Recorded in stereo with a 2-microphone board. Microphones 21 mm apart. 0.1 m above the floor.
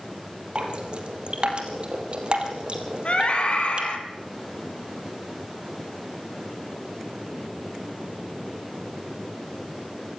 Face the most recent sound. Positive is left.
turn(degrees=55)  # may be behind; listen again after turning